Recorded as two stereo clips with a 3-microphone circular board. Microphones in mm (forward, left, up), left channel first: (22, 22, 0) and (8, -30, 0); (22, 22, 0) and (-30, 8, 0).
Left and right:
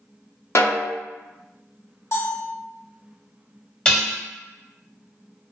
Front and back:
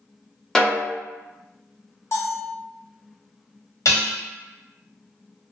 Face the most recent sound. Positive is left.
turn(degrees=5)